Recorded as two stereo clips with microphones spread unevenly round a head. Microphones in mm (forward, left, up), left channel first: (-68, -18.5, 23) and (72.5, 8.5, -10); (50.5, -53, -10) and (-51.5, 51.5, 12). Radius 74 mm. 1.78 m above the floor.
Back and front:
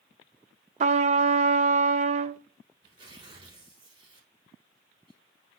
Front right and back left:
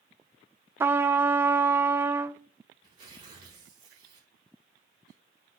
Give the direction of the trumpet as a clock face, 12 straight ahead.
10 o'clock.